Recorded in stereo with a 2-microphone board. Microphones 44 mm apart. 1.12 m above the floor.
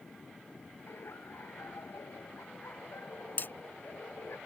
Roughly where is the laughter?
Left.